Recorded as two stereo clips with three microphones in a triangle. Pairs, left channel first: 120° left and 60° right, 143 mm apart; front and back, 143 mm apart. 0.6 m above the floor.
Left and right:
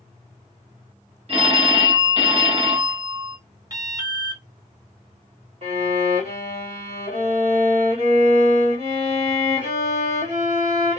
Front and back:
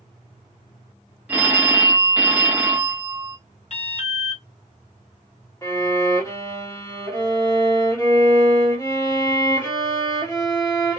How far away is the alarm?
About 1.1 m.